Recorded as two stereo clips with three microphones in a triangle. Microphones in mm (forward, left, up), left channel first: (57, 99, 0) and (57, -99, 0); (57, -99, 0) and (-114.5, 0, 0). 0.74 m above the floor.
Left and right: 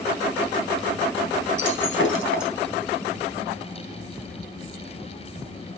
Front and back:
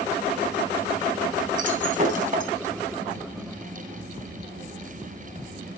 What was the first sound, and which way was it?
Breaking glass, 105° left.